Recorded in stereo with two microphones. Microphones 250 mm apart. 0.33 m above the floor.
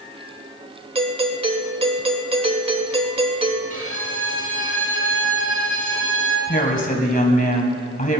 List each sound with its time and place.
0.9 s a doorbell: 20° right (ahead or behind), 1.4 m
3.7 s a violin: 60° right (ahead or behind), 3 m
6.5 s a woman speaking: 35° left (ahead or behind), 2 m